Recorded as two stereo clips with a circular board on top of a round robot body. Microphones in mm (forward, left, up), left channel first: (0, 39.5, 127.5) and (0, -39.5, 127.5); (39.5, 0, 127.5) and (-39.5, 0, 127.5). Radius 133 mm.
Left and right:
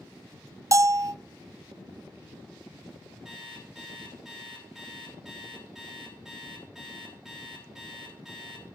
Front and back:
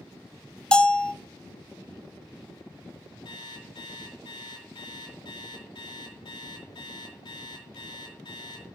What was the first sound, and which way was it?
A bell, 70° right.